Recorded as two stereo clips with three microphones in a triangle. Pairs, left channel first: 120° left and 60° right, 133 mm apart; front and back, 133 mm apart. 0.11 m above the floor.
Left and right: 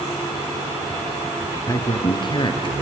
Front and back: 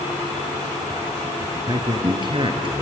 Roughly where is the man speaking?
Behind.